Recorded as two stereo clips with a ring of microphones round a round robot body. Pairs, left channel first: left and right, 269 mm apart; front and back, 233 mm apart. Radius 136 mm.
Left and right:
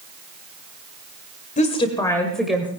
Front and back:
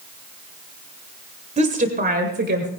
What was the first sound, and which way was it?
A woman speaking, 140° left.